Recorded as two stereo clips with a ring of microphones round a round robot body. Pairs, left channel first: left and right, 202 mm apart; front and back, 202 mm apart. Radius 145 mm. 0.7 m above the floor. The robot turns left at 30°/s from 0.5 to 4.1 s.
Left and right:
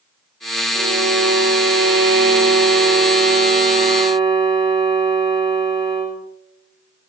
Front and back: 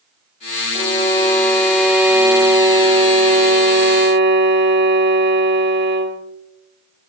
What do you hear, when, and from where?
0.8 s a violin: 60° right, 2.5 m; by 6.2 s 160° right, 2.5 m